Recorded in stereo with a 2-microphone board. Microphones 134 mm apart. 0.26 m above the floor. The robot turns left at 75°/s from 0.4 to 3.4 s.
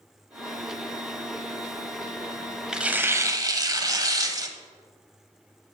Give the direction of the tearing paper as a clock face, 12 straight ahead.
12 o'clock.